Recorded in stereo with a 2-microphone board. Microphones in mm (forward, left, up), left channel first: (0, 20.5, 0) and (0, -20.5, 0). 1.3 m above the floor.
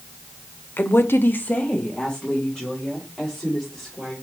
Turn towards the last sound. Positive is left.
turn(degrees=10)  # may be behind; listen again after turning